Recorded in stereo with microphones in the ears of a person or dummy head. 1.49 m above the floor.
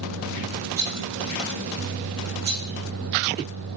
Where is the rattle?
45° right (ahead or behind), 3 m.